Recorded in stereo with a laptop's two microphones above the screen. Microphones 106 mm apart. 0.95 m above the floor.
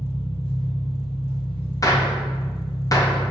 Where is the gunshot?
35° left (ahead or behind), 0.6 m.